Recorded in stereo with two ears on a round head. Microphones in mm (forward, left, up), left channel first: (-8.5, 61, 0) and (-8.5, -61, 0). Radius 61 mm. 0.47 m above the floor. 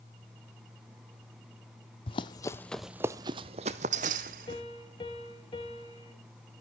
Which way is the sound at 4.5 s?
35° left (ahead or behind).